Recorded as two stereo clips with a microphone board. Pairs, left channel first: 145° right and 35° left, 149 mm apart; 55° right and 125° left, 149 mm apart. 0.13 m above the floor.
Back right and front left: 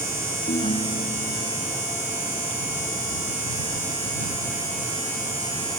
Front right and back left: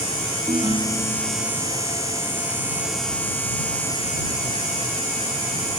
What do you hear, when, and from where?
0.5 s a ringtone: 170° right